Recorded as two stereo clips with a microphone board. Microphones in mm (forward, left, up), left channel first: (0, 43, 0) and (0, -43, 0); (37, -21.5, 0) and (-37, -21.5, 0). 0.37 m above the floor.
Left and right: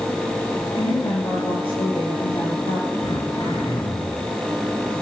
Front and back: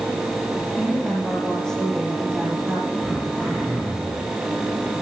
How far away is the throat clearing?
About 4.5 m.